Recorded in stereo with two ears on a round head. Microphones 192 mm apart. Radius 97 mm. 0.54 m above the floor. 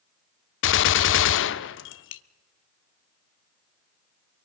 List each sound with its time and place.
0.6 s a gunshot: 60° left (ahead or behind), 0.5 m